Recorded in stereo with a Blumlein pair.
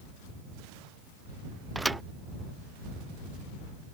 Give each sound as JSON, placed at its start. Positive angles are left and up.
{"t": 1.8, "sound": "a thud", "azimuth_deg": -5}